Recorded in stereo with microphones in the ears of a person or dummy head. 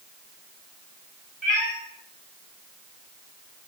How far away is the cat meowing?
About 2.0 m.